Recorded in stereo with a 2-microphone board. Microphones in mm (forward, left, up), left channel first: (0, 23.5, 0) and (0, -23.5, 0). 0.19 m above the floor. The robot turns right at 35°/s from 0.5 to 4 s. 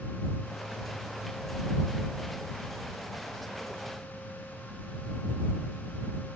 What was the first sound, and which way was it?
Only background noise.